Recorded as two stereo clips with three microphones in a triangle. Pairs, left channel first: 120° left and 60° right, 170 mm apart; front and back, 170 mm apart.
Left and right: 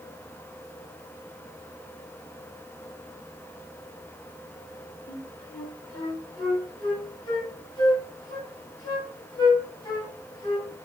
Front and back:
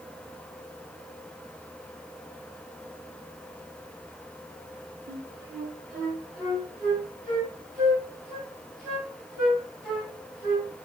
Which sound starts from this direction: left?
A flute, at 5.1 s.